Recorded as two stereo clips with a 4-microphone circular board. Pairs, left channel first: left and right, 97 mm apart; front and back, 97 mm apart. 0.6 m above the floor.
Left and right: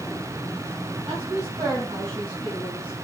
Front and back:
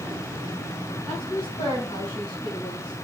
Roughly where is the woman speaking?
Ahead right.